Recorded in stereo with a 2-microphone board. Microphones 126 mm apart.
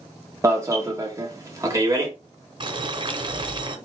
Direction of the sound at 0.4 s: 25° right (ahead or behind).